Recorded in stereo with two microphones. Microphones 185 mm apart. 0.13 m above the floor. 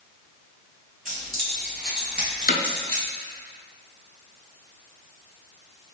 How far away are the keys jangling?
About 2.0 m.